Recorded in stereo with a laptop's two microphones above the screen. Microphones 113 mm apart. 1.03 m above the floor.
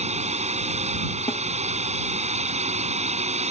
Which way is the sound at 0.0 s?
75° right (ahead or behind).